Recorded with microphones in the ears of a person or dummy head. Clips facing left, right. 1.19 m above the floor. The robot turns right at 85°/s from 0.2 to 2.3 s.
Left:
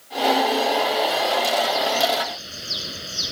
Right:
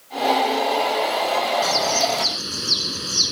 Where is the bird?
130° right; by 3.3 s 75° right.